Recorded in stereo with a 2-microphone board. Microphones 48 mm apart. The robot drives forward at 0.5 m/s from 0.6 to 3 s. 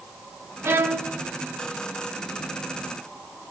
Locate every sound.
0.6 s a violin: 60° right (ahead or behind), 1.4 m